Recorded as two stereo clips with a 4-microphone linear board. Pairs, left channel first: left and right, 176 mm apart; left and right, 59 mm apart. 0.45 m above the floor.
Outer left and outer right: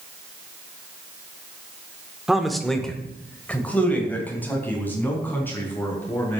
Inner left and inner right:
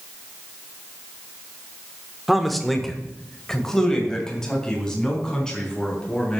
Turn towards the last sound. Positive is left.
turn(degrees=10)  # may be behind; listen again after turning